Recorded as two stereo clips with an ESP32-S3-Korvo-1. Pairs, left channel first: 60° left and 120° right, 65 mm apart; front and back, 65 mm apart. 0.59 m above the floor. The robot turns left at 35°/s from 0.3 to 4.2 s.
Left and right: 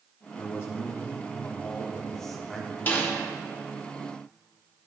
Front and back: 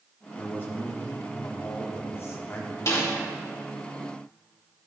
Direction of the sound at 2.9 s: 10° left.